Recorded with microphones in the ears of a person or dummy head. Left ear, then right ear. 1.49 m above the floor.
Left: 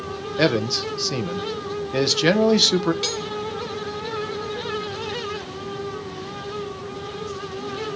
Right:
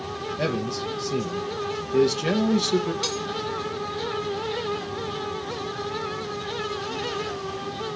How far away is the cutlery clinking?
About 2.5 m.